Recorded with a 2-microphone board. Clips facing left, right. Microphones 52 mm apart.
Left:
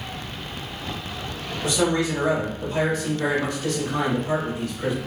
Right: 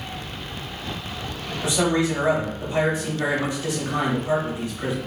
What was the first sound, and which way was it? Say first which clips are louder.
A man speaking: right 1 dB; 25° right (ahead or behind).